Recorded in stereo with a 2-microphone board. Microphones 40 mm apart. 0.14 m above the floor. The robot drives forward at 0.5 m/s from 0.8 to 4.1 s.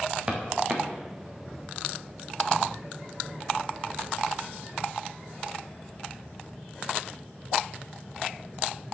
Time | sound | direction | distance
0.3 | footsteps | 20° right (ahead or behind) | 4 m